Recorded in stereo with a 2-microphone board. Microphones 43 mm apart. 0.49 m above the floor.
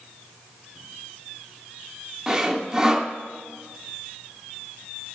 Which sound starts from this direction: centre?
Sawing, at 2.3 s.